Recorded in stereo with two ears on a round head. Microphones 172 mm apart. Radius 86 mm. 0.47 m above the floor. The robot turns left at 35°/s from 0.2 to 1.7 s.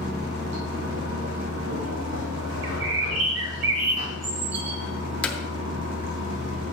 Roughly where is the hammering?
Centre.